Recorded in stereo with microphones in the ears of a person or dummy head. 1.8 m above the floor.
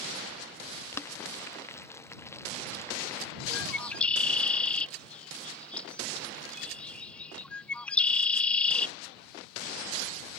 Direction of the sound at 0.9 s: 15° left (ahead or behind).